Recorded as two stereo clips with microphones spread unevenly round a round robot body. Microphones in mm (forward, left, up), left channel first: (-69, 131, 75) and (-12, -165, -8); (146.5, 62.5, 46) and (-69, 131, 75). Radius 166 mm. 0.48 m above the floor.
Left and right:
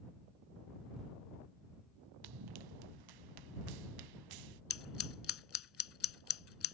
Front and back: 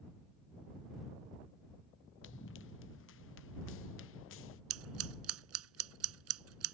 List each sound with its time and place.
2.2 s running footsteps: 70° right; by 4.6 s 65° right
4.7 s scissors: 150° left